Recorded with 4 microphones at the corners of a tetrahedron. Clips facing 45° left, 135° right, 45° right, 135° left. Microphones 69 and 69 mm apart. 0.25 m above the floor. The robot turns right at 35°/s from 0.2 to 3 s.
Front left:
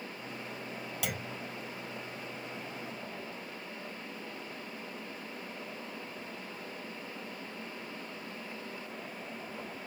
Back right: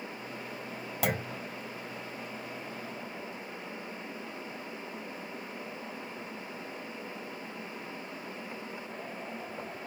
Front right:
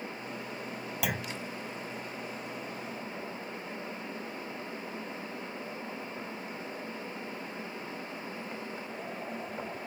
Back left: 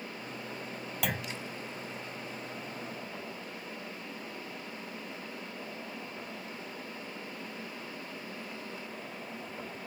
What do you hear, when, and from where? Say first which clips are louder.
1.0 s a clunk: back right 8 dB, front right 1 dB; 130° right; by 1.4 s 115° right